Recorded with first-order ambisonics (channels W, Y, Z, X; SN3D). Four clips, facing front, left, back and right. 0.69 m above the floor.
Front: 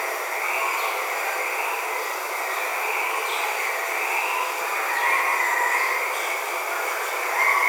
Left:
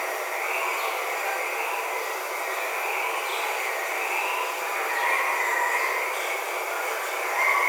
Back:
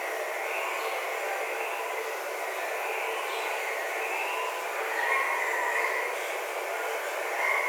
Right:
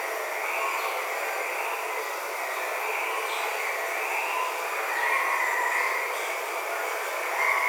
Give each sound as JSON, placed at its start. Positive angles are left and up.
{"t": 0.0, "sound": "running water", "azimuth_deg": 10, "distance_m": 0.9}